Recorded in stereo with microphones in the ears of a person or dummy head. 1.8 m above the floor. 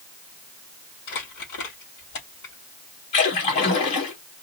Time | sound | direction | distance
1.1 | crumpling | 65° left (ahead or behind) | 3.5 m
3.1 | a splash | 40° left (ahead or behind) | 2.0 m